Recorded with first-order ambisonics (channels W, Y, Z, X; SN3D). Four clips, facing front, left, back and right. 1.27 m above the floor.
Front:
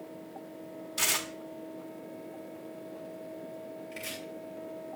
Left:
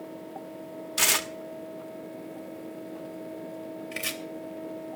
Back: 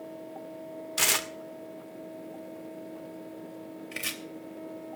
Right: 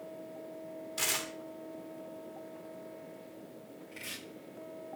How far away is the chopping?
About 3 m.